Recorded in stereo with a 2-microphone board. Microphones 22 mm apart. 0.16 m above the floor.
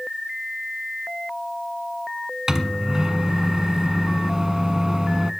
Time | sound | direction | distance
2.5 | a microwave | 30° right (ahead or behind) | 0.9 m